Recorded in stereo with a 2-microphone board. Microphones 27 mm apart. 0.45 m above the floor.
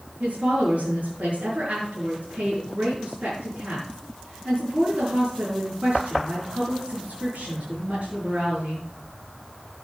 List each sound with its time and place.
0.2 s a woman speaking: 65° right (ahead or behind), 6.5 m